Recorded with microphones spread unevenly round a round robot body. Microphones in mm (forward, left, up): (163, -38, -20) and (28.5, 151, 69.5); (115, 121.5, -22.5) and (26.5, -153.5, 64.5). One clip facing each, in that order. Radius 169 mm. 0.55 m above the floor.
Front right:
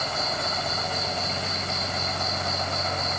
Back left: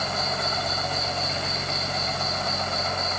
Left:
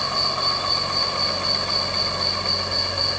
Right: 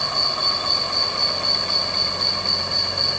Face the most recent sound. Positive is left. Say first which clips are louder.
# back left 1 dB, left 1 dB
turn(degrees=-105)